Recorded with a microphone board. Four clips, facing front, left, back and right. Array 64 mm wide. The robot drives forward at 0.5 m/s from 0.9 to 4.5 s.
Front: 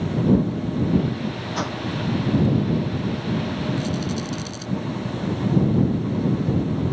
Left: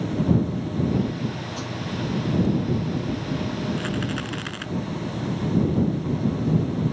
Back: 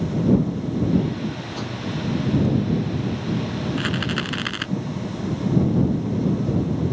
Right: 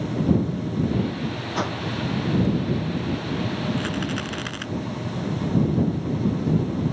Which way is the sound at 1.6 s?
60° right.